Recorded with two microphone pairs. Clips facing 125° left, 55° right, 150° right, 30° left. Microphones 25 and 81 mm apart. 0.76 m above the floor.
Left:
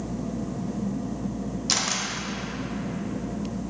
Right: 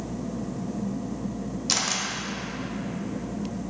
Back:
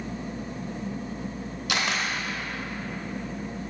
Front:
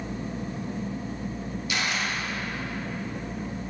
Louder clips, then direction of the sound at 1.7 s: Even, back 2 dB; 150° right.